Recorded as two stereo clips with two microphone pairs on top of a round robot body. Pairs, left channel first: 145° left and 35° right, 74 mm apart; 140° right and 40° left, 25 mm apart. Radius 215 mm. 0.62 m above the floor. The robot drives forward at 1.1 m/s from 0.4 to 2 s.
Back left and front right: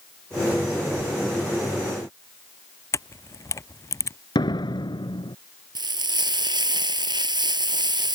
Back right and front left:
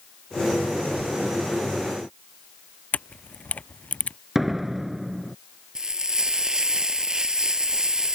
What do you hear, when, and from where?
2.9 s a camera shutter: 170° right
4.3 s a door slam: 125° left
5.8 s frying: 25° right